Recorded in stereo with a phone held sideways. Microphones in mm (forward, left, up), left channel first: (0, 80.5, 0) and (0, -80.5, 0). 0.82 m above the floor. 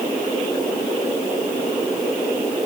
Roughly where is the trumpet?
I don't hear a trumpet.